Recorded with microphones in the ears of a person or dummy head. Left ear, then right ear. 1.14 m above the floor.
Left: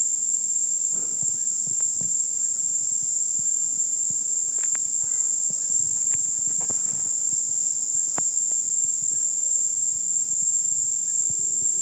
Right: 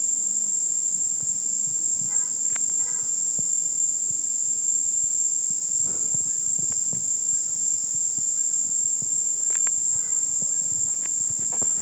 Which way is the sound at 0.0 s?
5° left (ahead or behind).